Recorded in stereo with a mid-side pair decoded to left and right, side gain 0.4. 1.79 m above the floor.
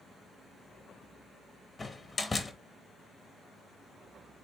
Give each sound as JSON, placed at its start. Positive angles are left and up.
{"t": 1.8, "sound": "a door slam", "azimuth_deg": 25, "distance_m": 2.5}